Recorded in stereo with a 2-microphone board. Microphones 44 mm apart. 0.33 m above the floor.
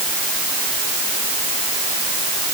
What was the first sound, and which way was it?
Only background noise.